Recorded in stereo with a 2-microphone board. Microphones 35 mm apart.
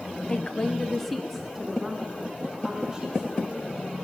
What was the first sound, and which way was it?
A woman speaking, 30° left (ahead or behind).